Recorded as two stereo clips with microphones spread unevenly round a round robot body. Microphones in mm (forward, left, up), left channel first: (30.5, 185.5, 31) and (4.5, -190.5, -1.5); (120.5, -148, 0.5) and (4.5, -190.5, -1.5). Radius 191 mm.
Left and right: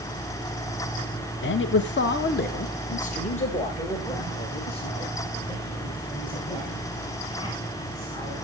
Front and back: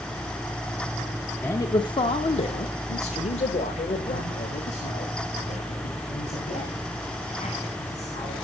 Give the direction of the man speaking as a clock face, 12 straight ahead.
10 o'clock.